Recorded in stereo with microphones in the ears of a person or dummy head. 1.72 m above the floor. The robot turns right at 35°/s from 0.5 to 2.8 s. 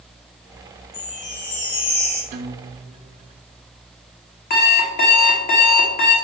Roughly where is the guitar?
Right.